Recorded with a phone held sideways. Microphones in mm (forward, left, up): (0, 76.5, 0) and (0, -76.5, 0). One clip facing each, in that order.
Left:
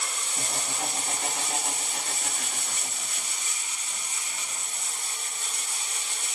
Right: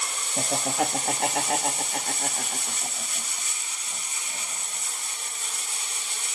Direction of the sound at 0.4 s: 75° right (ahead or behind).